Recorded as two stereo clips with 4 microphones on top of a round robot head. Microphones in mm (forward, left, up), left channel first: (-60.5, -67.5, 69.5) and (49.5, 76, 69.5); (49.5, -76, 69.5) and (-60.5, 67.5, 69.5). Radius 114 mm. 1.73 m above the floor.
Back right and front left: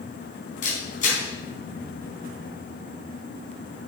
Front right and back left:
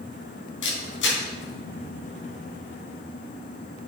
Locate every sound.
0.6 s a camera shutter: 75° right, 4 m